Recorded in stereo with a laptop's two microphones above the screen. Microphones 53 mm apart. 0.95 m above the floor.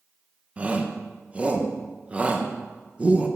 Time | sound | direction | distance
0.6 | a shout | 25° right (ahead or behind) | 0.9 m